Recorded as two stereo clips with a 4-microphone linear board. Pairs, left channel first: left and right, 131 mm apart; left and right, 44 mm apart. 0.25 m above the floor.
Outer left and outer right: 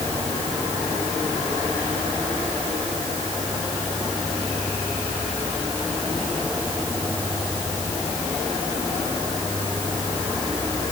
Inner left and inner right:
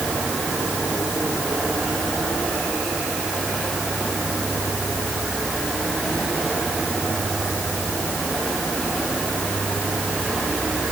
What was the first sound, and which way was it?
Only background noise.